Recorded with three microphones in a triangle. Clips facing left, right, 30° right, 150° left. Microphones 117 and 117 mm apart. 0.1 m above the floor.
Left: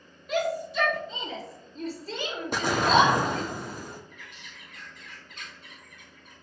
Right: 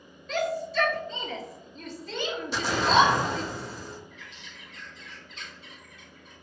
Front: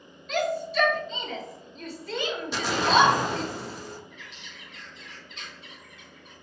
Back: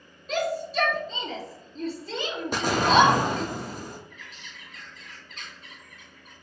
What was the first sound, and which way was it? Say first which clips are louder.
A shout: left 1 dB, even; 165° left.